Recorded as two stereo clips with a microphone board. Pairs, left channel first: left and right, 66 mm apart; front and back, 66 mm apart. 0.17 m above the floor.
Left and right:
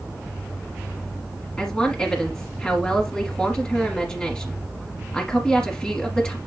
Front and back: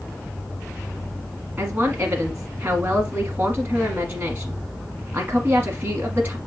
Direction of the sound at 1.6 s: 150° left.